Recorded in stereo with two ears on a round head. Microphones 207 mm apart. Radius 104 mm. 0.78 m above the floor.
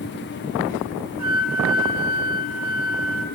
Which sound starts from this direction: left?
A flute, at 1.2 s.